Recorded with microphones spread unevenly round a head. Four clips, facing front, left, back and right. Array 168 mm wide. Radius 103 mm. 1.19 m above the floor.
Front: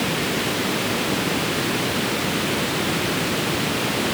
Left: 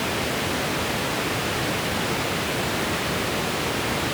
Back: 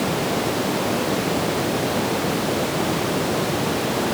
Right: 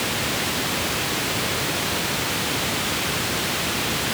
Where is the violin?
I don't hear a violin.